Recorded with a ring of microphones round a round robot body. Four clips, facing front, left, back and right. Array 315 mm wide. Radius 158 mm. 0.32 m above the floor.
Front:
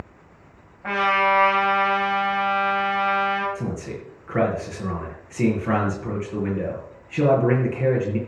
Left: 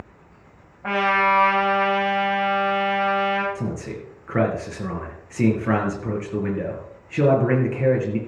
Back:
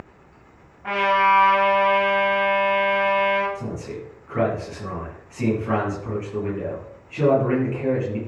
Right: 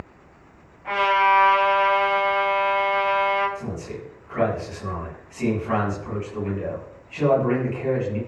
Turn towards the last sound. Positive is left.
turn(degrees=65)